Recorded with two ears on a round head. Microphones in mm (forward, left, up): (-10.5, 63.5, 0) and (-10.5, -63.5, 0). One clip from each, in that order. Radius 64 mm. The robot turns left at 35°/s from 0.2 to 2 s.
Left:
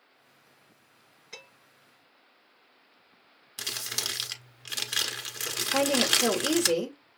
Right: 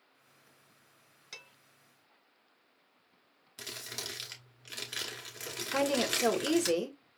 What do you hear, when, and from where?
1.3 s dishes clattering: 85° right, 4 m; by 1.5 s 80° right, 4 m
3.6 s crumpling: 35° left (ahead or behind), 1.2 m
5.7 s a woman speaking: 15° right (ahead or behind), 1.1 m